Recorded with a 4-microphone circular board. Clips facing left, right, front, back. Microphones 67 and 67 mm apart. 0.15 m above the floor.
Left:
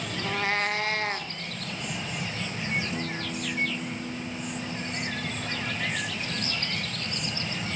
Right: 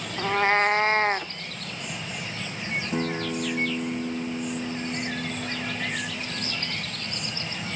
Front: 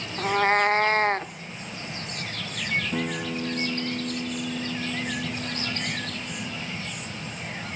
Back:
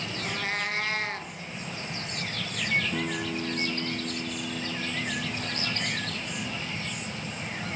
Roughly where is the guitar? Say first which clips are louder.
Right 5 dB, front 2 dB; right.